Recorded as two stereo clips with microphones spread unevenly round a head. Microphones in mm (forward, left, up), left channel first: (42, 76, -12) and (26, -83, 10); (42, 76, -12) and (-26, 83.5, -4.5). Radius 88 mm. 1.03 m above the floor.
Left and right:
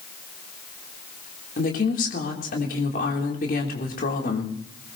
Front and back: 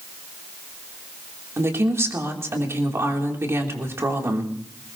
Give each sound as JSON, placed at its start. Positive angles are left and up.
{"t": 1.6, "sound": "a woman speaking", "azimuth_deg": 125, "distance_m": 3.5}